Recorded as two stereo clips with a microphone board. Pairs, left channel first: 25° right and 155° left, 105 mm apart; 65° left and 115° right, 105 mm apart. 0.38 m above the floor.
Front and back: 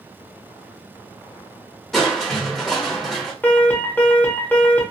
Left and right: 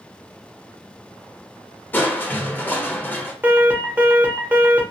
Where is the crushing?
60° left, 0.8 m.